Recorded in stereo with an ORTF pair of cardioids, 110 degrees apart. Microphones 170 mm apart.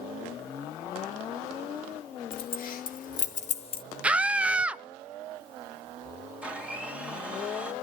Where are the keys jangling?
65° left, 2.5 m.